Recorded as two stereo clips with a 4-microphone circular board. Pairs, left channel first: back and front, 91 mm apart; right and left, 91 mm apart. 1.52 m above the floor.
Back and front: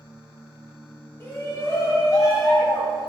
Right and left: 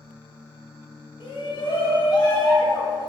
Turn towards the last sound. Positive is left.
turn(degrees=-135)